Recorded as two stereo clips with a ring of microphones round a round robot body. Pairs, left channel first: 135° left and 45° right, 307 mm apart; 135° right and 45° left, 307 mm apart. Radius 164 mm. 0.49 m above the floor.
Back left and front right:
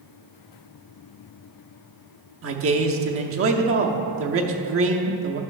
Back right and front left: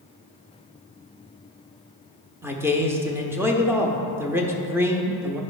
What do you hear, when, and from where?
2.4 s a man speaking: 35° right, 0.8 m